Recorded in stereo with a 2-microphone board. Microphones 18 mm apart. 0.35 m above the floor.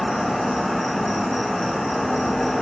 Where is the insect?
15° left (ahead or behind), 1.0 m.